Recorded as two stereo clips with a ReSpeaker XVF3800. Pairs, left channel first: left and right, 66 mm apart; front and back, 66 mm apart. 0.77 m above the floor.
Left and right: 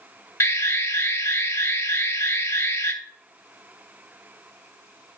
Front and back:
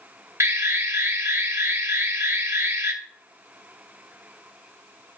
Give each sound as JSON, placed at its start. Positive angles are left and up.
{"t": 0.4, "sound": "an alarm", "azimuth_deg": 140, "distance_m": 1.2}